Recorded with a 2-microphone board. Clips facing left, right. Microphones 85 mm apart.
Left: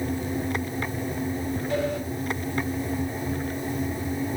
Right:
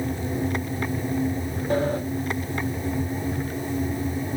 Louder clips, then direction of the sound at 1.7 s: Right 5 dB; 40° right (ahead or behind).